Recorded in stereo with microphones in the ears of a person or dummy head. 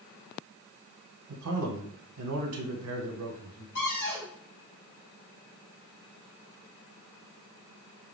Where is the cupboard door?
40° left (ahead or behind), 2 m.